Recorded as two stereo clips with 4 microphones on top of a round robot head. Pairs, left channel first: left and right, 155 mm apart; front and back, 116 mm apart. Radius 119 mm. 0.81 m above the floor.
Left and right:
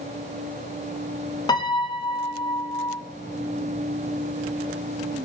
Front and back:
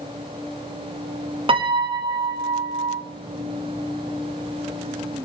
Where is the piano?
150° left, 1.5 m.